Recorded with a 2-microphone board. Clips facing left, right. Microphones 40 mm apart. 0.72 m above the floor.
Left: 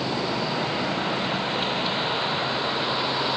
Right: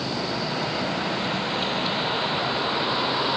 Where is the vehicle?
15° left (ahead or behind); by 3.4 s 5° right (ahead or behind).